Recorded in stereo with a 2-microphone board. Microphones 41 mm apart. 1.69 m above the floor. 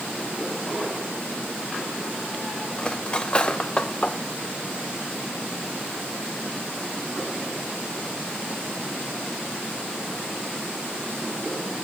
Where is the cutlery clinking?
25° left (ahead or behind), 0.8 m.